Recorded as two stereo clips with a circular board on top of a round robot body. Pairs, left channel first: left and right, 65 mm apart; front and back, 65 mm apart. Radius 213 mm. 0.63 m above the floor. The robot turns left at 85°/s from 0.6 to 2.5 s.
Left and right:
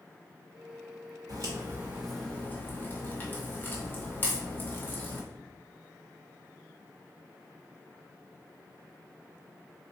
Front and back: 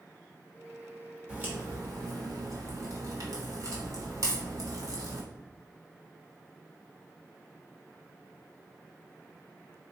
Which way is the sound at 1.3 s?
110° right.